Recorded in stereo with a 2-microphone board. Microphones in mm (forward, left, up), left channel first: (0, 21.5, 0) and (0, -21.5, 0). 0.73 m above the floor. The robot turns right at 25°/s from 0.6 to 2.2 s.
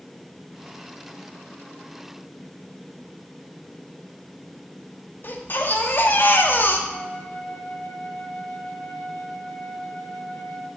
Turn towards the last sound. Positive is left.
turn(degrees=45)  # may be behind; listen again after turning